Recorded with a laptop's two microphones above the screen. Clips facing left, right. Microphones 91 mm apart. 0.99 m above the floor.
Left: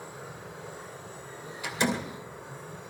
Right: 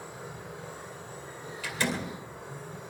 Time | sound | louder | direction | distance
1.6 | a door slam | left 3 dB | 20° left (ahead or behind) | 2.5 m